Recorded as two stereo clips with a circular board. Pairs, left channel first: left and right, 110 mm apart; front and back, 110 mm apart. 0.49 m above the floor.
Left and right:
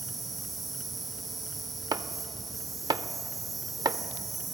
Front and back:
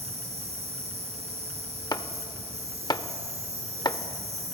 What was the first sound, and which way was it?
An insect, straight behind.